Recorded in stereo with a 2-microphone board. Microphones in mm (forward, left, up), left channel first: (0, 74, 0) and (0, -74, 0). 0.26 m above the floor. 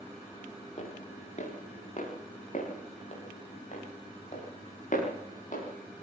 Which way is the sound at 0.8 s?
50° left (ahead or behind).